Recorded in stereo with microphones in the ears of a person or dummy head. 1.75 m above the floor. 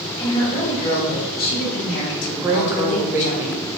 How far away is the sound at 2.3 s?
About 0.5 m.